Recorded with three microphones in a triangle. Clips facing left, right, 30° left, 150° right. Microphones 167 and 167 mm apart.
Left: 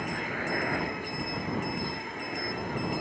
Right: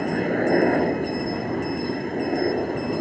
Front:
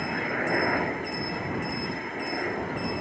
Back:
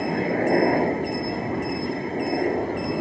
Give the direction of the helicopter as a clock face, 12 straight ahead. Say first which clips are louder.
Right 13 dB, back 8 dB; 3 o'clock.